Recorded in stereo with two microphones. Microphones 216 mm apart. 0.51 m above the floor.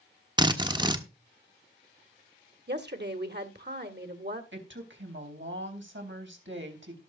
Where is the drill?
20° right (ahead or behind), 1.2 m.